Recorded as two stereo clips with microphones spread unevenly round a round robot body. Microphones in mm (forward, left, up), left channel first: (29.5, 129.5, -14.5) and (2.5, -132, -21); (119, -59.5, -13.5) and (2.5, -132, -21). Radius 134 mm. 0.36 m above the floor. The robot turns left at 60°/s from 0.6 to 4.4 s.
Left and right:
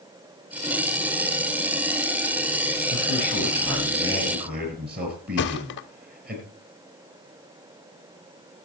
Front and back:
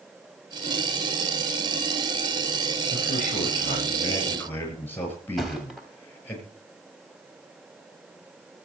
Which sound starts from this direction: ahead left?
A man speaking, at 2.9 s.